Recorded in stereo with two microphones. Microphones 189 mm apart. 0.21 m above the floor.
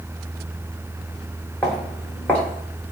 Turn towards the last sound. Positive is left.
turn(degrees=10)  # may be behind; listen again after turning